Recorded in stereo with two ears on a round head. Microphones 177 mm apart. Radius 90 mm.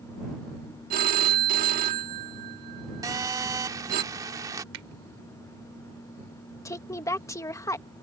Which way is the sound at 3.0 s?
20° right (ahead or behind).